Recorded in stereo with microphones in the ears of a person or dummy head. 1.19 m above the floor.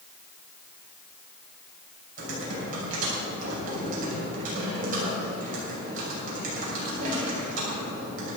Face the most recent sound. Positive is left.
turn(degrees=-45)  # may be behind; listen again after turning